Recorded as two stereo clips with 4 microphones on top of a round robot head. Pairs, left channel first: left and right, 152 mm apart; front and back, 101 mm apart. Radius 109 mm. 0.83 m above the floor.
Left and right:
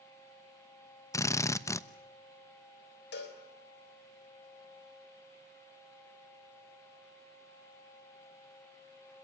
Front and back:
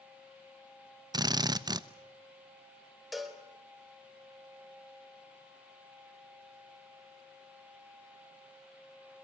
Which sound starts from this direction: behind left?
A drill, at 1.1 s.